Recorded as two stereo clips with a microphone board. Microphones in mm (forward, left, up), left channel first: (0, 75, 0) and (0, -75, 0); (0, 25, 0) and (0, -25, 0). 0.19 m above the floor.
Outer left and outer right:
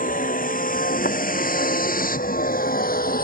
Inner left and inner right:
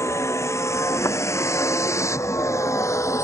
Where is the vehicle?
65° left (ahead or behind); by 3.2 s 75° left (ahead or behind).